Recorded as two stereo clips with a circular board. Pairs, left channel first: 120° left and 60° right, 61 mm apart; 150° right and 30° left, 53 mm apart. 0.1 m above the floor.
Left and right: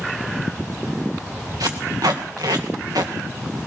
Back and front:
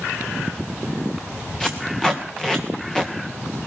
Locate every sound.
1.6 s tape being pulled: 70° right, 1.9 m